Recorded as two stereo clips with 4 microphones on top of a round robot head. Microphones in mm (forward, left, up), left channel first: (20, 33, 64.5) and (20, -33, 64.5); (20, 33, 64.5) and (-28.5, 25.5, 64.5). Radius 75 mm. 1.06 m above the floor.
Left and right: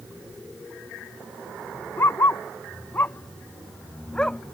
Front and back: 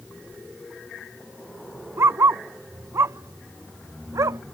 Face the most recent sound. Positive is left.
turn(degrees=175)